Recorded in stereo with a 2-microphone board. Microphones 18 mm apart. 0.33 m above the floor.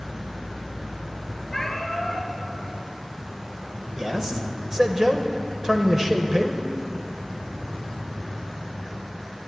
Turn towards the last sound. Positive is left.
turn(degrees=-25)  # may be behind; listen again after turning